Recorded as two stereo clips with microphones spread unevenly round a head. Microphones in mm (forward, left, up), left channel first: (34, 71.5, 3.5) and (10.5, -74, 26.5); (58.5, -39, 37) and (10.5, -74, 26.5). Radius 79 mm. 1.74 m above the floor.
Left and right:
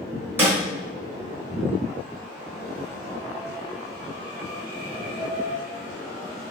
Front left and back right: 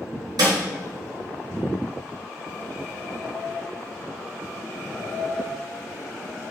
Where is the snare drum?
170° right, 3 m.